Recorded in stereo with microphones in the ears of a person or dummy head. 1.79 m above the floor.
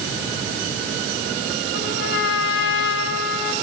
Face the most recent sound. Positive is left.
turn(degrees=70)  # may be behind; listen again after turning